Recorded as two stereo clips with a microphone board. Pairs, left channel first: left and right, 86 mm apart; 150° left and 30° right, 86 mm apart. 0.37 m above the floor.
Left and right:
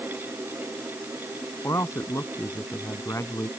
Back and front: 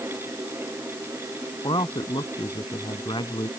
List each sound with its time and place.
1.6 s a man speaking: 140° left